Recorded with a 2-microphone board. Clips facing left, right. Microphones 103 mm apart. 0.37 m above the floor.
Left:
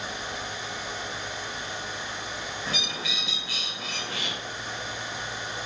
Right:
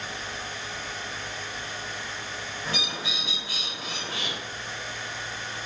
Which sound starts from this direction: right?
A bird, at 2.6 s.